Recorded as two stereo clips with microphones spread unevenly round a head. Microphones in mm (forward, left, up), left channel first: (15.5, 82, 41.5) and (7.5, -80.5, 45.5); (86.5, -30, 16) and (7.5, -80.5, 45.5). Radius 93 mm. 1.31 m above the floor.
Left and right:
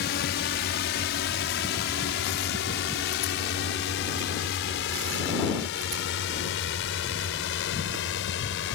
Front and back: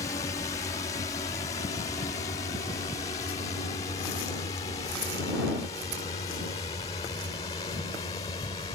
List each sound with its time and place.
0.0 s a drone: 80° left; by 8.8 s 90° left